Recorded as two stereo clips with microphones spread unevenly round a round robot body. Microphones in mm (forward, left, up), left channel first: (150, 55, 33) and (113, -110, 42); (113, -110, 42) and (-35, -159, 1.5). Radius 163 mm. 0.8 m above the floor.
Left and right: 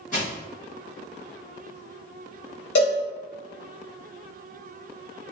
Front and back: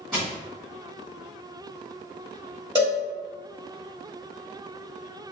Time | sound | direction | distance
0.1 | crushing | 115° left | 1.9 m
2.8 | a cowbell | 120° left | 0.9 m